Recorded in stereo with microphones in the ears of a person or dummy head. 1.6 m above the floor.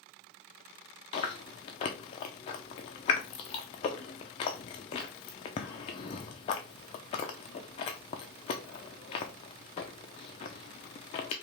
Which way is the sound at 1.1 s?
25° left (ahead or behind).